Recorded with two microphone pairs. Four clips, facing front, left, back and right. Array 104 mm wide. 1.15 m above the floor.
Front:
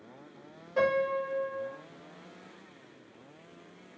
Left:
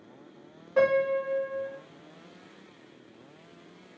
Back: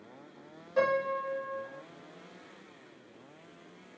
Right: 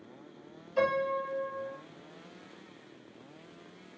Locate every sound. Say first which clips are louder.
0.8 s a piano: left 5 dB, front 1 dB; 90° left, 1.0 m